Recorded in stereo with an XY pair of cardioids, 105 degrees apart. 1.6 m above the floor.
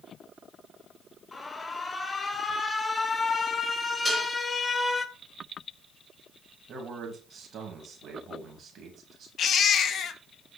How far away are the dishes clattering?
About 5 m.